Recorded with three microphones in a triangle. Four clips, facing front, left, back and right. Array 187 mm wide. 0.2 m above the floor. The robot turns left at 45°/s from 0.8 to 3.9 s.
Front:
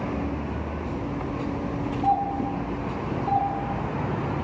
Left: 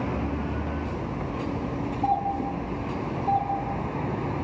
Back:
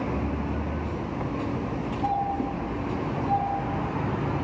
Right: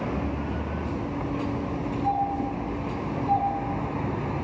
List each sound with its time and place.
2.0 s a doorbell: 85° left, 6.5 m; by 4.4 s straight ahead, 6.5 m